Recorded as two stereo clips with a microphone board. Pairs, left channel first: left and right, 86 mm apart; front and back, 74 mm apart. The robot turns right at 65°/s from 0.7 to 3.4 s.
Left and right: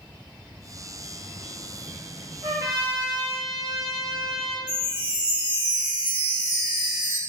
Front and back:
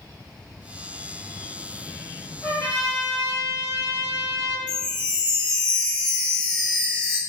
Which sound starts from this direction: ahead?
A chime, at 4.7 s.